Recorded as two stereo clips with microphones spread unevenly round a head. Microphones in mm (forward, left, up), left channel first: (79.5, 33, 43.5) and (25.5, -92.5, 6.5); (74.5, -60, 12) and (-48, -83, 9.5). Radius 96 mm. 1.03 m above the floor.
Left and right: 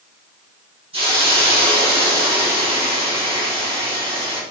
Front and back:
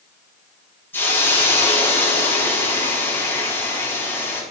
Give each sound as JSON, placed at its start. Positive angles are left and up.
{"t": 0.9, "sound": "a hiss", "azimuth_deg": -60, "distance_m": 4.0}